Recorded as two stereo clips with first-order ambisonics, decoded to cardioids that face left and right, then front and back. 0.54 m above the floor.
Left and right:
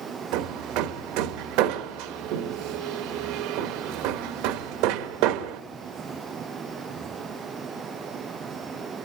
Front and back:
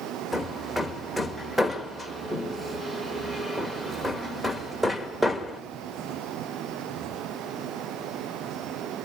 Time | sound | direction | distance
0.3 | hammering | 90° right | 0.9 m